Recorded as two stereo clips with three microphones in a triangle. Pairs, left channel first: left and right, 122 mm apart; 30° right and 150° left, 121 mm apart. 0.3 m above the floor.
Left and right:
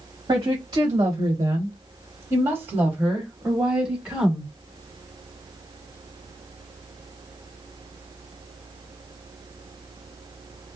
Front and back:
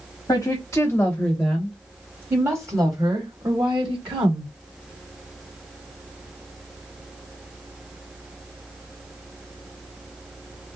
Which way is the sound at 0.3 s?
70° right.